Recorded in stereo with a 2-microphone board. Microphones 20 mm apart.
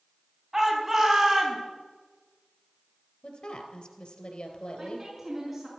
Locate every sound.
0.5 s a shout: 20° right (ahead or behind), 5 m
3.2 s a woman speaking: 60° left (ahead or behind), 3 m
4.8 s a woman speaking: 10° right (ahead or behind), 6.5 m